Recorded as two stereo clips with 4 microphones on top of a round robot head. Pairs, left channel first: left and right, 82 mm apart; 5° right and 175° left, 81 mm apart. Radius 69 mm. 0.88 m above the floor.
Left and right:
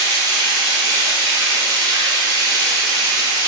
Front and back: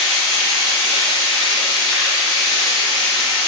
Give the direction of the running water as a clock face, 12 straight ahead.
3 o'clock.